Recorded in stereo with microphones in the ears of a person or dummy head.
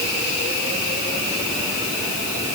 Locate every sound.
Only background noise.